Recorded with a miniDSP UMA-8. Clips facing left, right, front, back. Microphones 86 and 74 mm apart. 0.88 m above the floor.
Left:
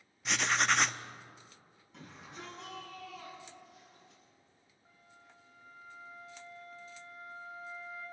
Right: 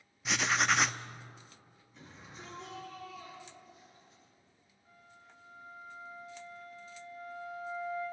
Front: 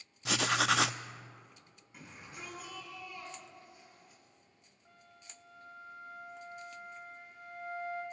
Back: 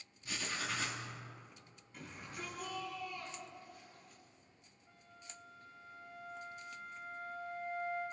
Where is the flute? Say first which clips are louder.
Right 2 dB, back 1 dB; 25° left, 7 m.